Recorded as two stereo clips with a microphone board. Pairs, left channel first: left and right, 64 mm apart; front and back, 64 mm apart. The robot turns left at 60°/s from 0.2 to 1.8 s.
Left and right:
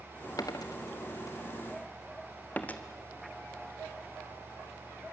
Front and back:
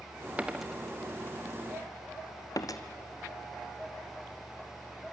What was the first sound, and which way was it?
A dropped coin, 110° left.